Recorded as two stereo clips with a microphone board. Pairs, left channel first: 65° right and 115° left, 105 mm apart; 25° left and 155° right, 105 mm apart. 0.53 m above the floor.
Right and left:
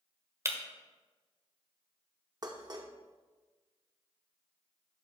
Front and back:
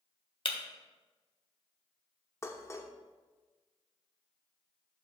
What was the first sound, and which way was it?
Breaking glass, 50° left.